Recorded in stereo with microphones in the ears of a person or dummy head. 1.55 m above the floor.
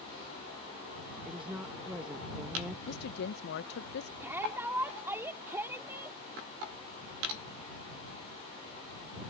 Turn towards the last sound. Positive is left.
turn(degrees=-10)  # may be behind; listen again after turning